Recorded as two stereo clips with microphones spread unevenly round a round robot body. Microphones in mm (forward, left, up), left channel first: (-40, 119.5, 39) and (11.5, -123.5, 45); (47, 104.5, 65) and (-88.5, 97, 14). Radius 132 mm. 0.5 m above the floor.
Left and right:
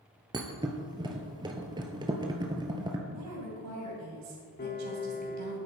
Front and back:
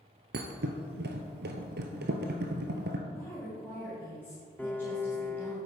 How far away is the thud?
About 1.1 m.